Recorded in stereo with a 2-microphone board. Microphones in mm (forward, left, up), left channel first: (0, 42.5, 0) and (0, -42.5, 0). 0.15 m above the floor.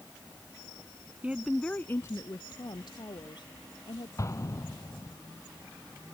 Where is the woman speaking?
20° right (ahead or behind); by 4.1 s 70° left (ahead or behind).